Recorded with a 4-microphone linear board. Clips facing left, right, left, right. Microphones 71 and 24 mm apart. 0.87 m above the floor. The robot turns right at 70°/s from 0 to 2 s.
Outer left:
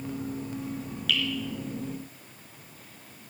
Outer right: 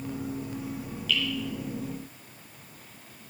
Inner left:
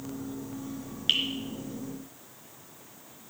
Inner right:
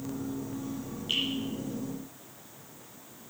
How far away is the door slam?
I don't hear a door slam.